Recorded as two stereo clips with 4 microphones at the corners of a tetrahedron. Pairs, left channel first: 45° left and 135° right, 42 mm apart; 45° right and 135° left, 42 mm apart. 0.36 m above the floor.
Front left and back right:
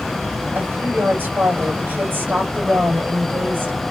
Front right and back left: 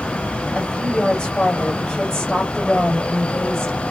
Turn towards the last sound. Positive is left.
turn(degrees=-105)